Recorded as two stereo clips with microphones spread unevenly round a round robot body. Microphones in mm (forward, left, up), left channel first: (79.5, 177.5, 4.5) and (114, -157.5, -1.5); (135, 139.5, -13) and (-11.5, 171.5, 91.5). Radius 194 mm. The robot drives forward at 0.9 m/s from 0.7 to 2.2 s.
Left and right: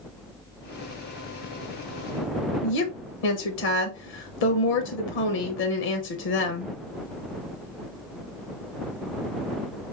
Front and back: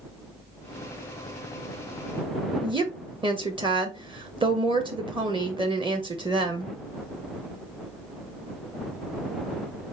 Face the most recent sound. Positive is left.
turn(degrees=90)